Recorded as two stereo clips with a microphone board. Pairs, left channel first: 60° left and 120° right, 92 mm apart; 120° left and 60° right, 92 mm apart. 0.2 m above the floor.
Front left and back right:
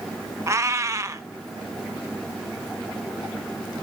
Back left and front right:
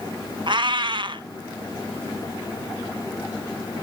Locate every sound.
0.5 s a cat meowing: 70° right, 0.9 m